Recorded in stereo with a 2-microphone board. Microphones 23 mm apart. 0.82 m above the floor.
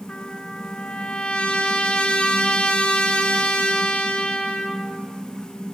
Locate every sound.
0.1 s a trumpet: 65° left (ahead or behind), 2 m